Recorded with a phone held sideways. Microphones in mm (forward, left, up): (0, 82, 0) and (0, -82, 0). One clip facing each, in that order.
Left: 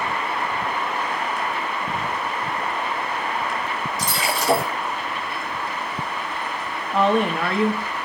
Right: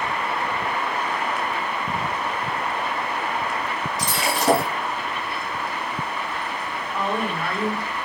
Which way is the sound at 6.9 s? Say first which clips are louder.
Left 7 dB; 75° left (ahead or behind).